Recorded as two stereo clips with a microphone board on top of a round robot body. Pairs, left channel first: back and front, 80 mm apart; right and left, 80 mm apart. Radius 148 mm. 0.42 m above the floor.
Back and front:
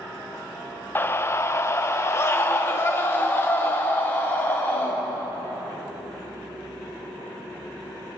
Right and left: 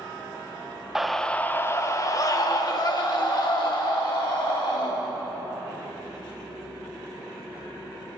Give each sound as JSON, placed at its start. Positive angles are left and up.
{"t": 0.9, "sound": "a scream", "azimuth_deg": 170, "distance_m": 1.0}